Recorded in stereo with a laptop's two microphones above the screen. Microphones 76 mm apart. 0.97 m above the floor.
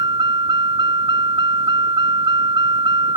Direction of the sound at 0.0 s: 75° right (ahead or behind).